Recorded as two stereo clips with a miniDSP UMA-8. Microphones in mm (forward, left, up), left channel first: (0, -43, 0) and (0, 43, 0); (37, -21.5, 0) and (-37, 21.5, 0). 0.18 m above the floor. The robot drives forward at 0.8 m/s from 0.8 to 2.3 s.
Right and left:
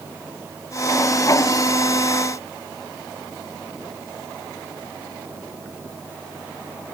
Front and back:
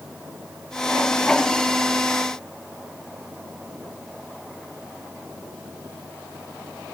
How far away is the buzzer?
I don't hear a buzzer.